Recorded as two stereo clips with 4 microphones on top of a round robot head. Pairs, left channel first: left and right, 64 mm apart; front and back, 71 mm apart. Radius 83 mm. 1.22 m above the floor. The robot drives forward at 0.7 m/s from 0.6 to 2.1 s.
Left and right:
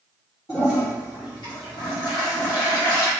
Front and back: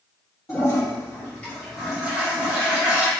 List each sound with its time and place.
0.5 s a toilet flushing: 45° left, 1.2 m; by 3.1 s 105° left, 0.9 m